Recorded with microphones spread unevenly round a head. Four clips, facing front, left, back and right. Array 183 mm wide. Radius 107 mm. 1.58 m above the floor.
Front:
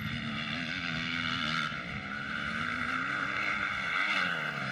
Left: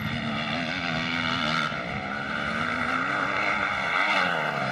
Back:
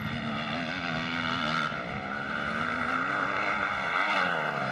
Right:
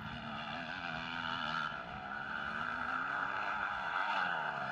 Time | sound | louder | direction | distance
0.0 | a motorcycle | left 13 dB, back 5 dB | 135° left | ?